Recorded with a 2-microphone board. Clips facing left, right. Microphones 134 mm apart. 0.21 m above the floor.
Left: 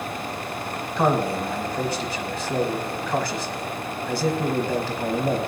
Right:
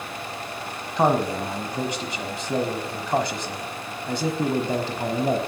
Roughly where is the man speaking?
Right.